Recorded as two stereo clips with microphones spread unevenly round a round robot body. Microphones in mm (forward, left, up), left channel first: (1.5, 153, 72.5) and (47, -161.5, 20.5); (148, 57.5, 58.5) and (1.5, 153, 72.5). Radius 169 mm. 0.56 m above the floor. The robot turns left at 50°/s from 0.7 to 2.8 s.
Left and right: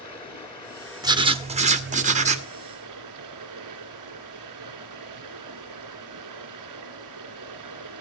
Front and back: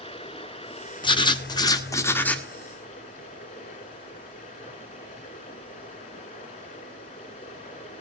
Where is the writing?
35° right, 1.4 m; by 2.5 s 105° right, 1.4 m.